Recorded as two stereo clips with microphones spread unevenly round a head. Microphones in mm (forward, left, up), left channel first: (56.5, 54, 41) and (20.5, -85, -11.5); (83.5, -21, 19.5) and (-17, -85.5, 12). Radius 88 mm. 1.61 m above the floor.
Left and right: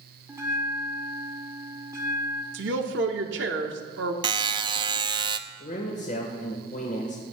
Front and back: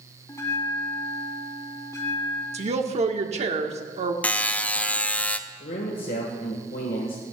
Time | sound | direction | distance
0.3 | a bell | 25° right | 2 m
2.5 | a woman speaking | 120° right | 1.4 m
4.2 | a buzzer | 35° right | 0.6 m
5.6 | a man speaking | 40° left | 1.5 m